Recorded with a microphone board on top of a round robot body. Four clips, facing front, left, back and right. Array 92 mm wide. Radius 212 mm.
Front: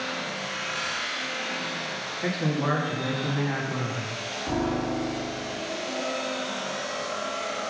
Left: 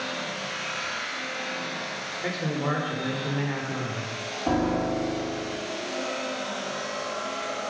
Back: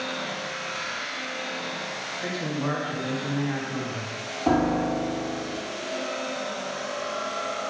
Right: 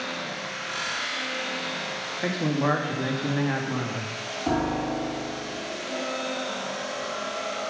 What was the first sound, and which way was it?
A man speaking, 80° right.